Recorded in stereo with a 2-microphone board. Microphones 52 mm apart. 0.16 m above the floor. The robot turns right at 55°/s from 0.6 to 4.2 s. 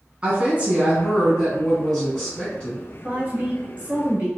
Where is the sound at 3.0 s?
115° right, 1.2 m; by 4.3 s 55° right, 1.2 m.